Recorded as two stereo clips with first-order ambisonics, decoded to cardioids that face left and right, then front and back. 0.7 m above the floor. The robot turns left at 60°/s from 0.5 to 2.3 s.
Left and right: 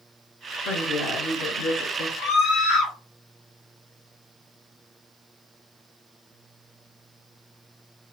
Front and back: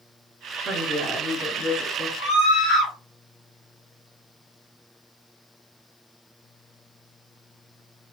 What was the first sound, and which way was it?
A woman speaking, 105° left.